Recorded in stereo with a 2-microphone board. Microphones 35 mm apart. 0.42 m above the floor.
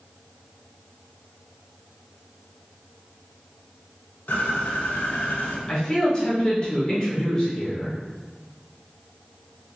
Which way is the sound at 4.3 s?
75° left (ahead or behind).